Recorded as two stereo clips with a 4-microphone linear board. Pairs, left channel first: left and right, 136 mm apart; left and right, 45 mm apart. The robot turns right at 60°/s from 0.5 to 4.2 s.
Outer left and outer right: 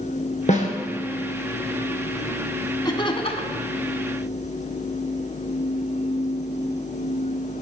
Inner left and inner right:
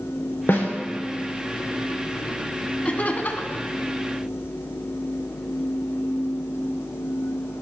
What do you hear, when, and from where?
0.5 s a snare drum: 55° left (ahead or behind), 2 m; by 0.7 s 65° left (ahead or behind), 2 m
2.9 s laughter: 40° left, 1.6 m; by 3.6 s 85° left, 1.6 m